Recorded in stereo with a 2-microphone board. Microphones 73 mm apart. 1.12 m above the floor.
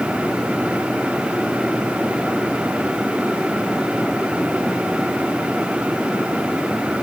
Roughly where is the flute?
No flute in this recording.